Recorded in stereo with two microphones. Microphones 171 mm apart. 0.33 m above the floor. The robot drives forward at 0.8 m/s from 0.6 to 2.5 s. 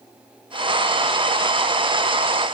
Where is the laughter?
I don't hear laughter.